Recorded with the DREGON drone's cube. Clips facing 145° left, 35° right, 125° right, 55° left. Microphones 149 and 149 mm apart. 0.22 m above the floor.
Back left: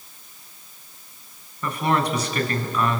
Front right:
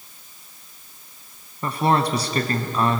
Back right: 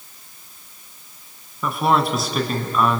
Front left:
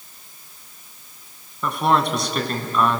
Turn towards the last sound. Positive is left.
turn(degrees=-40)